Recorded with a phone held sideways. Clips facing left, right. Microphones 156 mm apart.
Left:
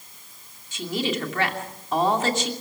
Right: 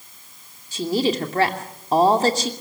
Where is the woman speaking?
35° right (ahead or behind), 2.5 m.